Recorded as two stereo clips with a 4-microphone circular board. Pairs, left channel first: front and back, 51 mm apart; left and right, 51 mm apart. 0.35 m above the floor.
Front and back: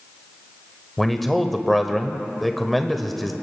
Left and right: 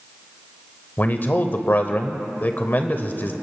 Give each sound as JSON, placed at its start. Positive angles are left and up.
{"t": 1.0, "sound": "a man speaking", "azimuth_deg": 90, "distance_m": 1.1}